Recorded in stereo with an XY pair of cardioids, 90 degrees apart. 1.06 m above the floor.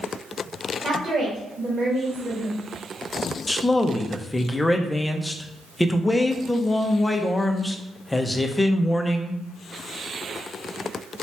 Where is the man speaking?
15° left, 0.6 m.